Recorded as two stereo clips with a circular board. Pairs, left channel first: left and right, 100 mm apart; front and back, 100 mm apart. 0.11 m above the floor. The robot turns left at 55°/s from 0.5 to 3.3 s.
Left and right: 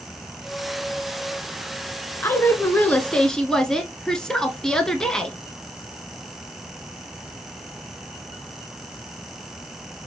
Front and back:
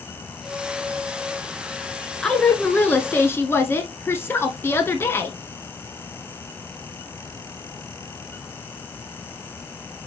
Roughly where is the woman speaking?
Left.